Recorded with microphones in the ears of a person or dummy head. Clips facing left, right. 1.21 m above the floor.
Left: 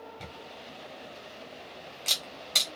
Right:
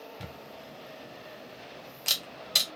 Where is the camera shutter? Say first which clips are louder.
Even; 10° right (ahead or behind), 0.7 m.